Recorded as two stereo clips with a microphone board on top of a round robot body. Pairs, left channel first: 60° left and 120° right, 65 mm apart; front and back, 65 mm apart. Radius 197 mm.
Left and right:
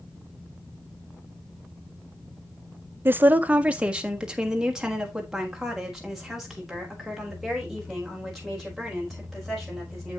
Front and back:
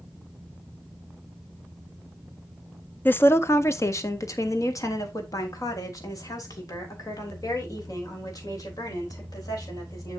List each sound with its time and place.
3.0 s a woman speaking: 65° right, 0.7 m; by 10.2 s 30° right, 5.5 m